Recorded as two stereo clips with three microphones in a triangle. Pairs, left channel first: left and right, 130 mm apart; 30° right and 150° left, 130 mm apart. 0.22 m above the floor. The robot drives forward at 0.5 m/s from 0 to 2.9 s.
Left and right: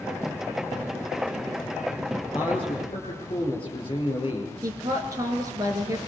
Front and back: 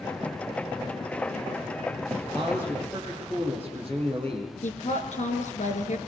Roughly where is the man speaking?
Ahead left.